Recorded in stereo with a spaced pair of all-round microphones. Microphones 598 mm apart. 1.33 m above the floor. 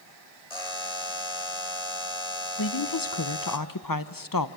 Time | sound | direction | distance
0.5 | a buzzer | 70° left (ahead or behind) | 2.5 m
2.6 | a woman speaking | 35° left (ahead or behind) | 0.9 m